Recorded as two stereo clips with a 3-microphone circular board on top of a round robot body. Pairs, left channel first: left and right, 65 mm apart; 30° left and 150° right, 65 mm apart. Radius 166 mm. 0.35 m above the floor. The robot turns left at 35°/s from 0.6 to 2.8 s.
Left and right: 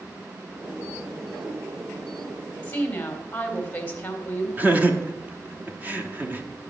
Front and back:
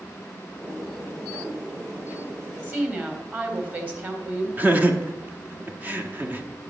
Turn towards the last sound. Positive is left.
turn(degrees=-120)